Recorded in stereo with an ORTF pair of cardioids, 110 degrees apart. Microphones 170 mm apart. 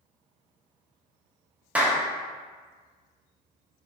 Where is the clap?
5° right, 0.7 m.